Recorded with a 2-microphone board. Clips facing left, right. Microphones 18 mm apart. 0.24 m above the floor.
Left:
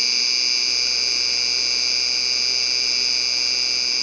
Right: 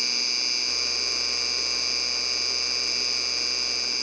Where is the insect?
25° left (ahead or behind).